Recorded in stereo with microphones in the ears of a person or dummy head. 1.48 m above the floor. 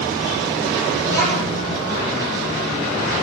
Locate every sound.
1.0 s a child speaking: 10° left (ahead or behind), 1.9 m